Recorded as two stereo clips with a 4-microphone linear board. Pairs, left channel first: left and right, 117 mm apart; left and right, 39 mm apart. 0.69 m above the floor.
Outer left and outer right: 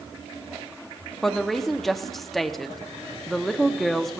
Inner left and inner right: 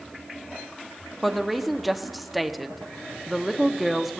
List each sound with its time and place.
1.2 s a woman speaking: centre (ahead or behind), 0.8 m